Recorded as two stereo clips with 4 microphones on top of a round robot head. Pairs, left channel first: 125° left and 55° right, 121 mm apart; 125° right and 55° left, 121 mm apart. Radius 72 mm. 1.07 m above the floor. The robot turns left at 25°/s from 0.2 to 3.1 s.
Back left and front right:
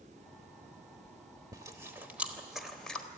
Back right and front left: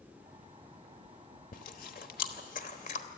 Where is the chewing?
115° right, 1.2 m; by 3.1 s 155° right, 1.2 m.